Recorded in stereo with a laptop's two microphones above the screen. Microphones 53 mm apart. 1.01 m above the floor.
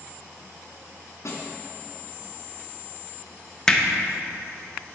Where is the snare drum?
60° left (ahead or behind), 2.5 m.